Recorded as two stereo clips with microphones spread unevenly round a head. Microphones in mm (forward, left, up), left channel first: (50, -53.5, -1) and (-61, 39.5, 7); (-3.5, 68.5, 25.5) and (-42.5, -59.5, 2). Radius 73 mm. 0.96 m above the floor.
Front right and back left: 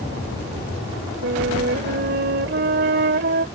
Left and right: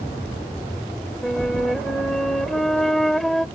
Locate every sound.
1.2 s a flute: 160° left